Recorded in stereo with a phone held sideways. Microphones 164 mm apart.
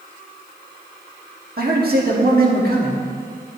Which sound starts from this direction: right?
A man speaking, at 1.6 s.